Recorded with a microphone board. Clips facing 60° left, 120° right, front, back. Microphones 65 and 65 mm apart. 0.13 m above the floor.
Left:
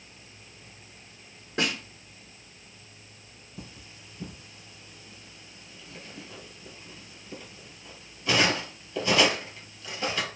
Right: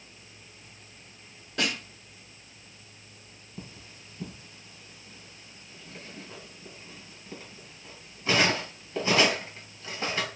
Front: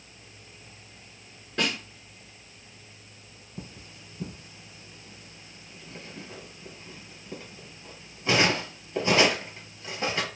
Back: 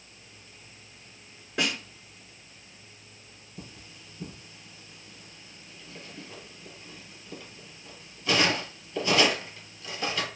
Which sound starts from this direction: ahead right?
Cutlery clinking, at 3.6 s.